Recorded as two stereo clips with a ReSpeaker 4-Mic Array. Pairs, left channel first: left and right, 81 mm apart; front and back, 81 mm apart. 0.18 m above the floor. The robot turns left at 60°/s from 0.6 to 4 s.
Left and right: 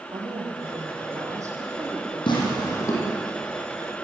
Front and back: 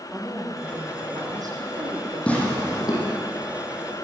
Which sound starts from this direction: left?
Tearing paper, at 2.3 s.